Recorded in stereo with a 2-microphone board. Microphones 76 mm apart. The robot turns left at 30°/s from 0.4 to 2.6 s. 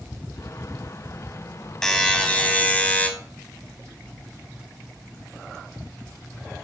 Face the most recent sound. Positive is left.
turn(degrees=20)  # may be behind; listen again after turning